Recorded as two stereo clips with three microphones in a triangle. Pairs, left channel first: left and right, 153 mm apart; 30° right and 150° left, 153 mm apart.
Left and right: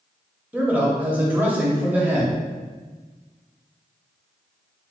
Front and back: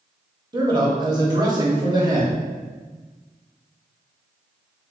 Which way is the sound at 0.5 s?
160° right.